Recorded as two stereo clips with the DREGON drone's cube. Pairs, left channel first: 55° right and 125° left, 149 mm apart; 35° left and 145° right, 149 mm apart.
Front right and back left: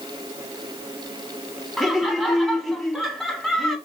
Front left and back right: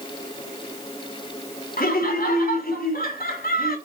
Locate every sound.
1.8 s laughter: 35° left, 3 m